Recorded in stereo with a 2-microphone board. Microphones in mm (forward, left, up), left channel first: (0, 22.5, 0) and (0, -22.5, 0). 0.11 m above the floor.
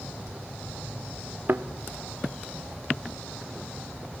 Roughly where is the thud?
Right.